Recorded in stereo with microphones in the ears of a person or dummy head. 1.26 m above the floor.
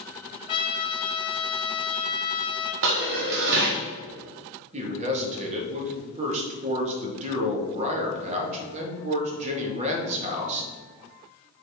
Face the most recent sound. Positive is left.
turn(degrees=-35)  # may be behind; listen again after turning